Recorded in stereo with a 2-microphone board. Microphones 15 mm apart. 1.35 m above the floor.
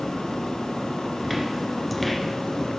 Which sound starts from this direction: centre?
Footsteps, at 1.2 s.